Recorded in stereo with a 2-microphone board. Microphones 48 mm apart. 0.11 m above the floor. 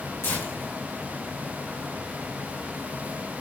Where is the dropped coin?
I don't hear a dropped coin.